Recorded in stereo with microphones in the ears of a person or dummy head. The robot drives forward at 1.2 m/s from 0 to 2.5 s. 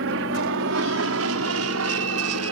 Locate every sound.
0.0 s an aircraft: 65° right (ahead or behind); by 2.5 s 75° right (ahead or behind)